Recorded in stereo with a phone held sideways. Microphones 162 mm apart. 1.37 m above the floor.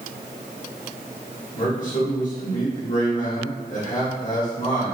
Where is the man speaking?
55° left (ahead or behind), 1.7 m.